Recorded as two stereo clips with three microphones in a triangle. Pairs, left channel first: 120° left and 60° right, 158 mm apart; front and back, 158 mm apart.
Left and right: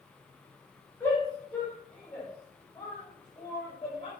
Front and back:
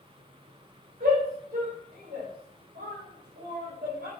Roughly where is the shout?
Behind.